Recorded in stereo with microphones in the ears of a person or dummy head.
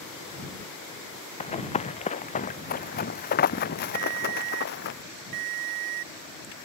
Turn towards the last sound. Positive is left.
turn(degrees=-45)  # may be behind; listen again after turning